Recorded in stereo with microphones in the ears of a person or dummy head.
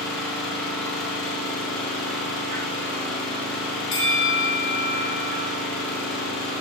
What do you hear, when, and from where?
0.0 s an engine running: 5° left (ahead or behind), 1.1 m
3.9 s a bell: 30° left (ahead or behind), 1.2 m